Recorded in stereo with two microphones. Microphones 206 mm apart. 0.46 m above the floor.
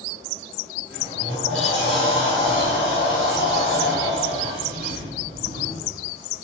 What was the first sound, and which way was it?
A sliding door, 55° right (ahead or behind).